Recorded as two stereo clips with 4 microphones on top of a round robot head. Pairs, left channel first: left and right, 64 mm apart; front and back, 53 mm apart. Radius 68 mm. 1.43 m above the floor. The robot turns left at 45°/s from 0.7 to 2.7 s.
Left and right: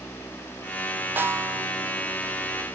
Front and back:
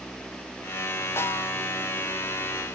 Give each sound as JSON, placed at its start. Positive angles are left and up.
{"t": 1.2, "sound": "a snare drum", "azimuth_deg": -35, "distance_m": 1.4}